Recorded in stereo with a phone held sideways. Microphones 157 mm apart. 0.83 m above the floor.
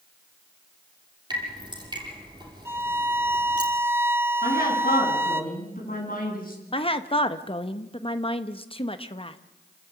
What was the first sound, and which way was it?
Dripping, 25° right (ahead or behind).